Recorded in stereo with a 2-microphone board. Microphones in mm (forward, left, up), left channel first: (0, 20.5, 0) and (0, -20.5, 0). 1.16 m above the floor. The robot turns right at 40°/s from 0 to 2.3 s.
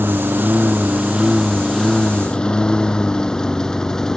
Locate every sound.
0.0 s a lawn mower: 60° right (ahead or behind); by 4.2 s 15° left (ahead or behind)